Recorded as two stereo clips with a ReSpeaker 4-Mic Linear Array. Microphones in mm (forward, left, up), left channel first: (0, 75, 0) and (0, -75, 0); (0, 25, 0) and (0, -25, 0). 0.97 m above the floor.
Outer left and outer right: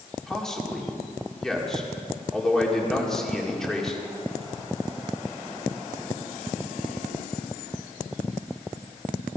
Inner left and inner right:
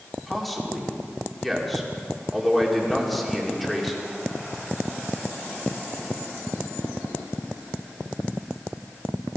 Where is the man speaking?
5° left (ahead or behind), 2.5 m.